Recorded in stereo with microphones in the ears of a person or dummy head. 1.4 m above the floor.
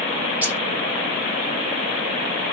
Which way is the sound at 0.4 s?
10° right (ahead or behind).